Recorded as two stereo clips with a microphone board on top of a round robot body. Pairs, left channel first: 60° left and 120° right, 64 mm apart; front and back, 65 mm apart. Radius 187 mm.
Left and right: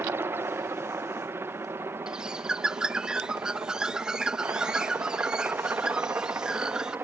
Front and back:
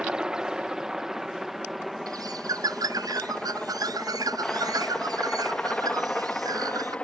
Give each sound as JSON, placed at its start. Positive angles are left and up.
{"t": 0.0, "sound": "a helicopter", "azimuth_deg": -110}
{"t": 2.1, "sound": "a bird", "azimuth_deg": 160}